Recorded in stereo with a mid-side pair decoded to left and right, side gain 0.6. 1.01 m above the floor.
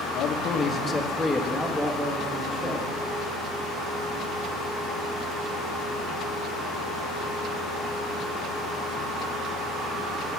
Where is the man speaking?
65° left, 0.6 m; by 2.8 s 25° right, 1.7 m.